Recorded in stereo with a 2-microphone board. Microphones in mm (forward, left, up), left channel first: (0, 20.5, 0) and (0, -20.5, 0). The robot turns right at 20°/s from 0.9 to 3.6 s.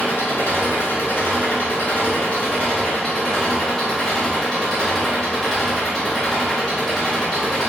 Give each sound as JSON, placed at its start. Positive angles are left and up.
{"t": 0.0, "sound": "an engine running", "azimuth_deg": 120, "distance_m": 1.8}